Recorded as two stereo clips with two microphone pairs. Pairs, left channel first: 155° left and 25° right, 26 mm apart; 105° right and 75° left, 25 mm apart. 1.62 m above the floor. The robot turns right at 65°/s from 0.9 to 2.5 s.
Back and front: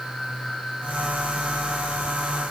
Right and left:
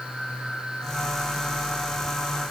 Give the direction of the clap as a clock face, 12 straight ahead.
No clap in this recording.